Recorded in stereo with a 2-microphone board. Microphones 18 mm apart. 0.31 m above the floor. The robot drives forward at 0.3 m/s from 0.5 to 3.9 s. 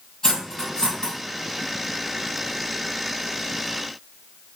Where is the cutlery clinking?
40° left (ahead or behind), 1.7 m.